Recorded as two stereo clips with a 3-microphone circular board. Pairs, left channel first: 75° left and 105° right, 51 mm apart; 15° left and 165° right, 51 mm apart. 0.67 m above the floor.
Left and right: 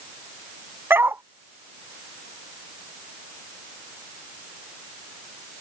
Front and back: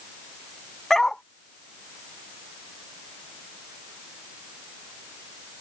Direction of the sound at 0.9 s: 65° right.